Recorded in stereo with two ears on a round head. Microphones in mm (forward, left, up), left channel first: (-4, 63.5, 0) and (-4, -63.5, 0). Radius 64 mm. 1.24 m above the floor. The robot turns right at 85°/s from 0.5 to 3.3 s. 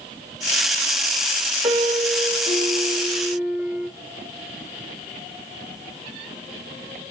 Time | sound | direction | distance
1.6 | a piano | 150° right | 1.1 m